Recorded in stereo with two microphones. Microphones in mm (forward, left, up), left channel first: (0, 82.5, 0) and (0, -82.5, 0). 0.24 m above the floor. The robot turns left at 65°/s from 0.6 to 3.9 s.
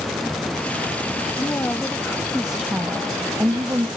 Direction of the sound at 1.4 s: 20° left (ahead or behind).